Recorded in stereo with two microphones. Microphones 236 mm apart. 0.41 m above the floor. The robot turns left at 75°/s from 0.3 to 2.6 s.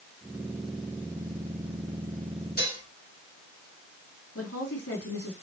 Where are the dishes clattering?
40° left (ahead or behind), 4 m.